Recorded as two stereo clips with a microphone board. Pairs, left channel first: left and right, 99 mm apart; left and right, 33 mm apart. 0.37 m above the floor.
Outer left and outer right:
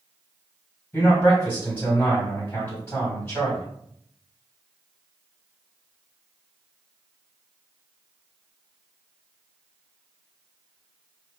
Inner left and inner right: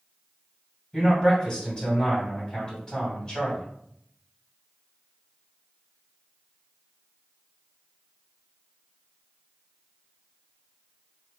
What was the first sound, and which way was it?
A man speaking, 20° left (ahead or behind).